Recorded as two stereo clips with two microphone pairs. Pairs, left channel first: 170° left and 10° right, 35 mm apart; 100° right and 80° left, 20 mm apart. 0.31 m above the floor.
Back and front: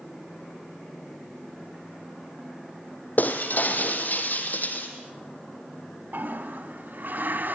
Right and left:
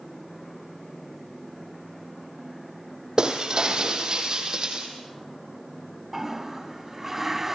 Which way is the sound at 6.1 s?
5° left.